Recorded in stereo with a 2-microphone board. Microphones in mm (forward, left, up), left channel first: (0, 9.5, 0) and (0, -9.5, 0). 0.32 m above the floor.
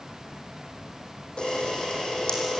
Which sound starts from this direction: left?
A camera shutter, at 1.4 s.